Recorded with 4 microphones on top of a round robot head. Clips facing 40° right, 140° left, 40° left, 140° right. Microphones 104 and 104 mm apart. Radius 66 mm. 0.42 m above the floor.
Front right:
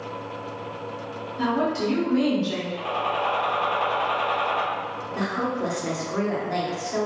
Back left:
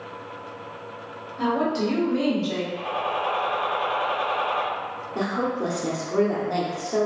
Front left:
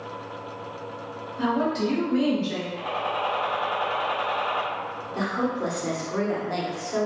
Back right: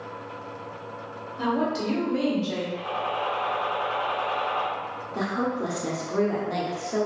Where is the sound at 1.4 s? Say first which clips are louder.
Back left 1 dB, front left 1 dB; 175° left, 1.4 m; by 2.6 s 130° right, 1.8 m.